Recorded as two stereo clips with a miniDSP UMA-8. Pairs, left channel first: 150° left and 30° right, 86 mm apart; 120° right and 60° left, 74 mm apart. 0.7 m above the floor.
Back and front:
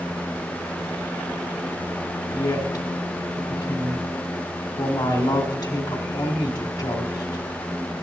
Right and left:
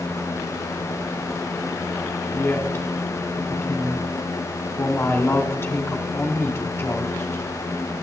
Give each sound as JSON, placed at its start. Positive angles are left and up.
{"t": 2.3, "sound": "a woman speaking", "azimuth_deg": -175, "distance_m": 2.0}